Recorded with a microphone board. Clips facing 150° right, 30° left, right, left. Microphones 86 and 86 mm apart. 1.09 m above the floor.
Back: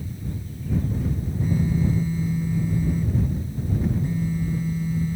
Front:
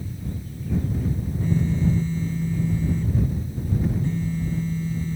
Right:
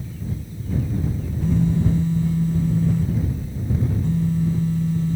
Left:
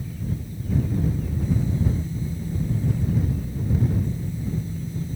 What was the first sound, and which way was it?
A phone buzzing, 70° right.